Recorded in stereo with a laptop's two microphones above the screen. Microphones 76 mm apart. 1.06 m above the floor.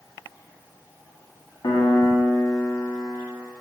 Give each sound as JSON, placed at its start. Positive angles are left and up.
{"t": 1.6, "sound": "a piano", "side_deg": 75, "distance_m": 1.0}